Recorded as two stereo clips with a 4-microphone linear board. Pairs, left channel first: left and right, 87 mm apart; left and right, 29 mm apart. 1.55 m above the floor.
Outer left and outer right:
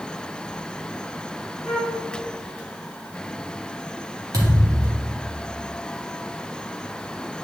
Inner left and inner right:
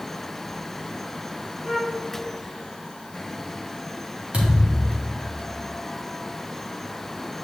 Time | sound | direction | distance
1.6 | a flute | 5° left (ahead or behind) | 3.5 m
4.3 | a thud | 50° right (ahead or behind) | 2.5 m